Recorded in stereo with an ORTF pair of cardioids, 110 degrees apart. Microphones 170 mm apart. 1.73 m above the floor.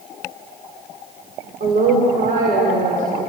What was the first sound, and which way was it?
A woman speaking, 50° right.